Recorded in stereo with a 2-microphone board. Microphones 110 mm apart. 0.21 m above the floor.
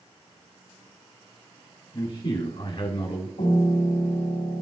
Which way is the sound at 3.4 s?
75° left (ahead or behind).